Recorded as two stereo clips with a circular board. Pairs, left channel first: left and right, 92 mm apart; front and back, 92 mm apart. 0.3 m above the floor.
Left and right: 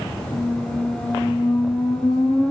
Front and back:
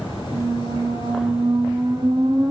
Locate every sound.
0.3 s a squeak: 135° left, 3.5 m